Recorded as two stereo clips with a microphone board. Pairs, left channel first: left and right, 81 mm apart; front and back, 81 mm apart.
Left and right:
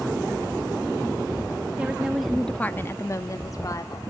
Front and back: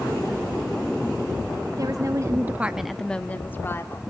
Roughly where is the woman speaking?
Behind.